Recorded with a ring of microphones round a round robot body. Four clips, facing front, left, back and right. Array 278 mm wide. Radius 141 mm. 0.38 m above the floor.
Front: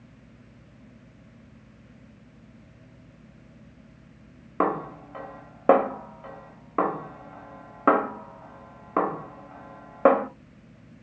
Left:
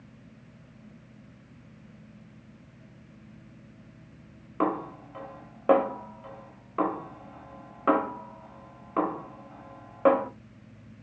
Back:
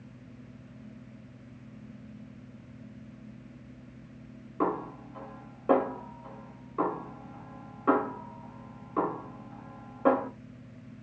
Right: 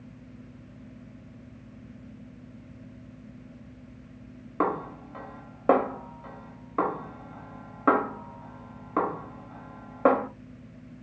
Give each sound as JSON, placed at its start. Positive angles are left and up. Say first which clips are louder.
{"t": 4.6, "sound": "a snare drum", "louder": "even, front 4 dB", "azimuth_deg": -15, "distance_m": 0.6}